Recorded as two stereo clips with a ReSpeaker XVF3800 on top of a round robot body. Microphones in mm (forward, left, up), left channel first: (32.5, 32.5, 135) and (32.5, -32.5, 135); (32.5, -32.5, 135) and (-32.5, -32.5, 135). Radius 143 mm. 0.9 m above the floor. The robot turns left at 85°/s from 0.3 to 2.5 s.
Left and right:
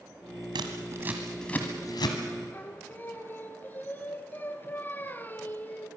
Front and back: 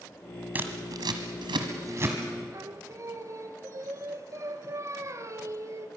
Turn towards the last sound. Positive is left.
turn(degrees=150)